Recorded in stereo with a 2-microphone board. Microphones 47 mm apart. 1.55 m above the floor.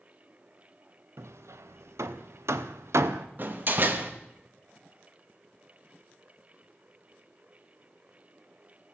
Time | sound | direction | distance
1.2 | hammering | 80° right | 0.7 m
3.4 | a door slam | 45° right (ahead or behind) | 1.1 m